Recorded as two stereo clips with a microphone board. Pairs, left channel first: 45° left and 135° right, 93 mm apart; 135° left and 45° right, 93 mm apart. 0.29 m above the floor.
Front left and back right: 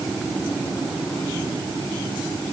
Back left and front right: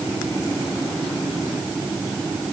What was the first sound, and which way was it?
Only background noise.